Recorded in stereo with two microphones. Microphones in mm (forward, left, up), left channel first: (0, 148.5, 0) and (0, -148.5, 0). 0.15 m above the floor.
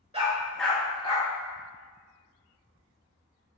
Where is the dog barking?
20° right (ahead or behind), 0.7 m; by 1.3 s 25° left (ahead or behind), 1.1 m.